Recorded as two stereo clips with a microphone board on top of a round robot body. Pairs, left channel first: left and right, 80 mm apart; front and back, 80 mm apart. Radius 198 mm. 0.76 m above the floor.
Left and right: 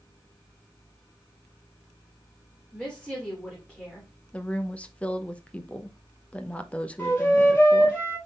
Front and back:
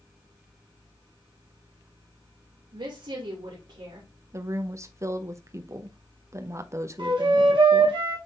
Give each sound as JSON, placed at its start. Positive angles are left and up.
{"t": 2.7, "sound": "a woman speaking", "azimuth_deg": 170, "distance_m": 3.0}
{"t": 4.3, "sound": "a woman speaking", "azimuth_deg": 155, "distance_m": 1.1}
{"t": 7.0, "sound": "a flute", "azimuth_deg": 155, "distance_m": 4.0}